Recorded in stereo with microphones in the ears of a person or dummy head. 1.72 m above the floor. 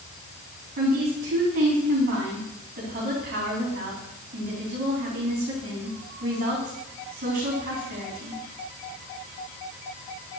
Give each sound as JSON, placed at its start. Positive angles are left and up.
{"t": 0.8, "sound": "a woman speaking", "side_deg": -50, "distance_m": 3.0}